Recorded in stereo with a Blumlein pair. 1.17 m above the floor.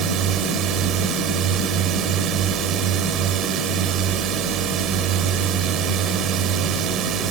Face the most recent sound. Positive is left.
turn(degrees=-30)